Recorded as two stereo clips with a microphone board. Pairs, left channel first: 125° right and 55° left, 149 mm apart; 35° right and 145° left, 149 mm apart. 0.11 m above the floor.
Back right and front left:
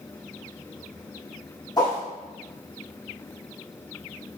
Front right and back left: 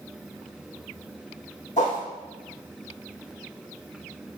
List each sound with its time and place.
1.8 s a whoosh: 65° right, 3.5 m